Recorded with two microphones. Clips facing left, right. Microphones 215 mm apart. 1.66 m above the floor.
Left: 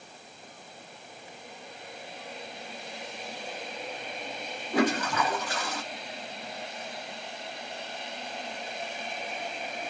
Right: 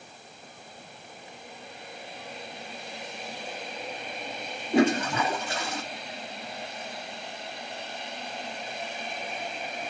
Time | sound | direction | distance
4.7 | a toilet flushing | 25° right (ahead or behind) | 1.2 m